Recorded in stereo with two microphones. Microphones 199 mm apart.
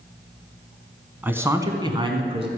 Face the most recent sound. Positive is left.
turn(degrees=-30)  # may be behind; listen again after turning